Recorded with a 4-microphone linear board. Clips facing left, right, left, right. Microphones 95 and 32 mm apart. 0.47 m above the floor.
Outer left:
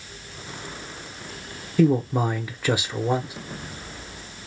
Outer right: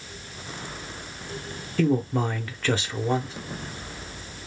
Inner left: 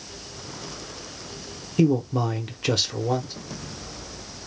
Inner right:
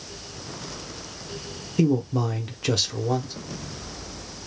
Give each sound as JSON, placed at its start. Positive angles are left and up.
{"t": 1.8, "sound": "a man speaking", "side_deg": 10, "distance_m": 0.7}